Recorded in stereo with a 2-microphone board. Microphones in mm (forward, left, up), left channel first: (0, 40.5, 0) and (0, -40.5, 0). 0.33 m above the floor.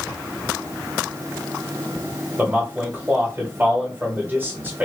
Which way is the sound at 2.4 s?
25° right (ahead or behind).